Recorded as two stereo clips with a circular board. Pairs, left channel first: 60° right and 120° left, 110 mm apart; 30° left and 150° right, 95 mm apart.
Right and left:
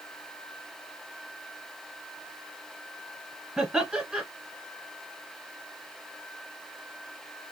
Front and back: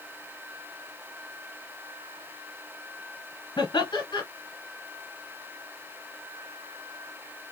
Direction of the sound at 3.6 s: 35° left.